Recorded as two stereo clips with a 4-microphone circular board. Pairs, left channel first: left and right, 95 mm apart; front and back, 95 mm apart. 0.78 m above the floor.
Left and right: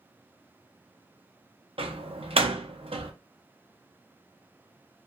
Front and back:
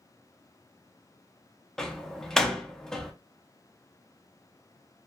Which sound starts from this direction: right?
A door slam, at 1.8 s.